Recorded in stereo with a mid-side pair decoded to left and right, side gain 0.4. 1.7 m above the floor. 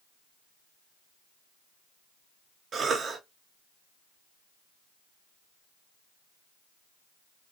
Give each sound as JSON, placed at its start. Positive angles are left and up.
{"t": 2.7, "sound": "a cough", "azimuth_deg": -60, "distance_m": 1.4}